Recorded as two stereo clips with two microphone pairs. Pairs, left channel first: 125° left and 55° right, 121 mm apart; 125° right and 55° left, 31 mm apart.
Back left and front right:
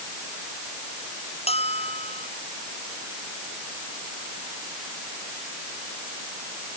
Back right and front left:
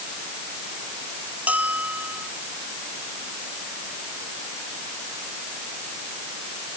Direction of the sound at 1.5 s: 95° left.